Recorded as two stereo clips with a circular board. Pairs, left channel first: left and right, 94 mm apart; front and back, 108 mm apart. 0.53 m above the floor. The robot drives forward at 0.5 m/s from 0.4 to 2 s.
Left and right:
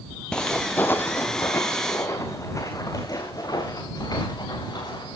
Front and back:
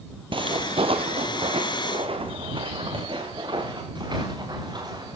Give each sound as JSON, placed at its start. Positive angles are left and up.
{"t": 0.3, "sound": "footsteps", "azimuth_deg": 170, "distance_m": 0.8}